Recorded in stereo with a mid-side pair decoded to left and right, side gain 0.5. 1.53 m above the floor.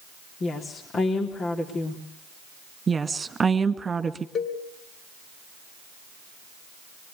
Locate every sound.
0.4 s a woman speaking: 45° left, 3.5 m
2.9 s a woman speaking: 25° right, 2 m
4.3 s a cowbell: 45° left, 4 m